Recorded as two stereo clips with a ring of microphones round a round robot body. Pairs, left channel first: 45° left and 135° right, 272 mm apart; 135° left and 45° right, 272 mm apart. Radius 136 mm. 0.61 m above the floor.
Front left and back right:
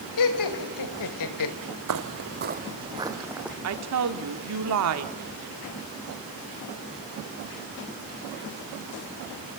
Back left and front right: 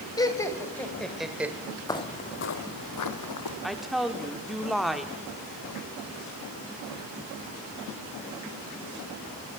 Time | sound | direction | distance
0.2 | laughter | 60° left | 2.5 m
1.9 | footsteps | 150° right | 1.0 m
3.6 | a woman speaking | 135° right | 1.6 m